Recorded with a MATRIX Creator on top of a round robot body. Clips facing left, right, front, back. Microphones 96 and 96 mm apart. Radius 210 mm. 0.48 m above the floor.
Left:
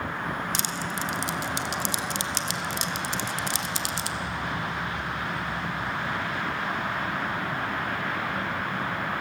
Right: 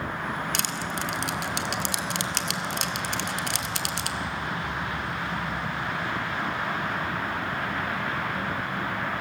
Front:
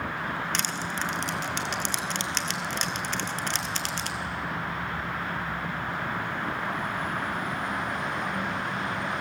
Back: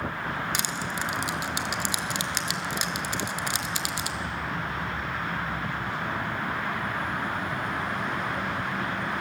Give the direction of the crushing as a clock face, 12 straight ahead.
3 o'clock.